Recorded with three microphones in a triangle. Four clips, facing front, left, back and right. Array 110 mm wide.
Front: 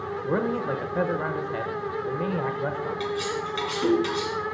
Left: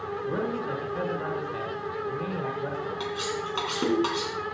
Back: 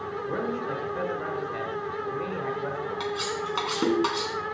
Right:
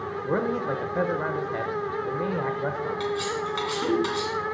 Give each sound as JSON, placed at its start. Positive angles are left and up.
{"t": 0.2, "sound": "a man speaking", "azimuth_deg": -50, "distance_m": 1.1}
{"t": 3.0, "sound": "cutlery clinking", "azimuth_deg": 160, "distance_m": 2.5}